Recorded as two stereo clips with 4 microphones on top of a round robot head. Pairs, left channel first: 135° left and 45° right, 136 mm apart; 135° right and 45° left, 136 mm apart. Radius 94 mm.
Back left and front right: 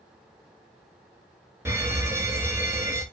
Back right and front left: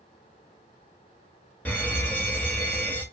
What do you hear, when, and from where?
1.6 s a fire alarm: 75° right, 1.6 m